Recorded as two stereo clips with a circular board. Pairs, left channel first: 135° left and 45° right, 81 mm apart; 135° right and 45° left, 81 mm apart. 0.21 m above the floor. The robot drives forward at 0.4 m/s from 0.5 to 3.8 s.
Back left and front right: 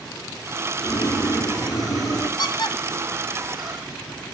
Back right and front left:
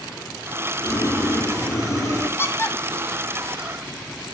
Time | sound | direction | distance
0.8 | boiling | 175° left | 1.4 m
2.4 | a squeak | 165° left | 1.1 m